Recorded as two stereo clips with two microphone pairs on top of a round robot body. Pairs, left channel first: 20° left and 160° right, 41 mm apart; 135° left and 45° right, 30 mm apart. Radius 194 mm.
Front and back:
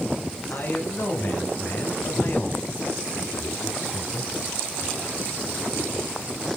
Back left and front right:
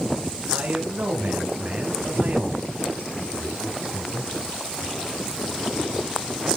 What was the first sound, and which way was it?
A man speaking, 25° right.